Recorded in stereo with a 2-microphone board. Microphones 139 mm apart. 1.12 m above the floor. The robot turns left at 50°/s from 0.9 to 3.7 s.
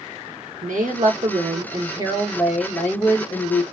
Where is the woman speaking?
95° right, 1.2 m; by 3.6 s 130° left, 1.2 m.